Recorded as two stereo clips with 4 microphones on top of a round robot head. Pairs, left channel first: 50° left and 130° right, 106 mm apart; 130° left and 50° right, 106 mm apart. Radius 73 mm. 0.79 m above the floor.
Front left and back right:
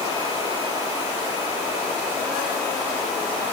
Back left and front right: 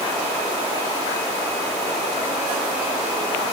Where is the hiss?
No hiss in this recording.